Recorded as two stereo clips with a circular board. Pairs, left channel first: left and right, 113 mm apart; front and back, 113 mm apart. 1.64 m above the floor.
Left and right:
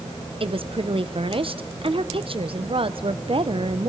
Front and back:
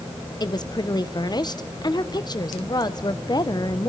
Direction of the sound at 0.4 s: 50° right.